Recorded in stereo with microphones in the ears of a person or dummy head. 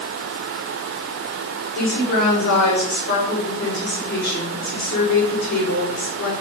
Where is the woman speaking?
50° left (ahead or behind), 4.5 m.